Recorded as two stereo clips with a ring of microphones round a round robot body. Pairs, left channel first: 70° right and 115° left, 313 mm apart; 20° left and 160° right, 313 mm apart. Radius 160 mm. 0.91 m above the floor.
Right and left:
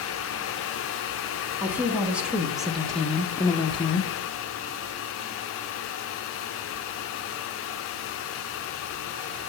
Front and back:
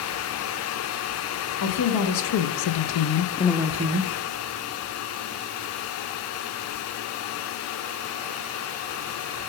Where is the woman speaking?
30° left, 2 m; by 4.1 s 140° right, 0.9 m.